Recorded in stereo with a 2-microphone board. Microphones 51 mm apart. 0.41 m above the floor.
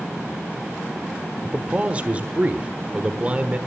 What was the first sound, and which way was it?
A man speaking, 30° right (ahead or behind).